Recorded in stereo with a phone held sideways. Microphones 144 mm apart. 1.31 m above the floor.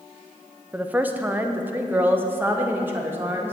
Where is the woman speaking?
10° right (ahead or behind), 0.7 m; by 3.5 s 15° right (ahead or behind), 2.5 m.